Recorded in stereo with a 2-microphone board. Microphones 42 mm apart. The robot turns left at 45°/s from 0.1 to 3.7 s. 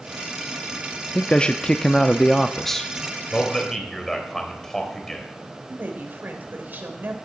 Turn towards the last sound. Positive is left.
turn(degrees=-50)  # may be behind; listen again after turning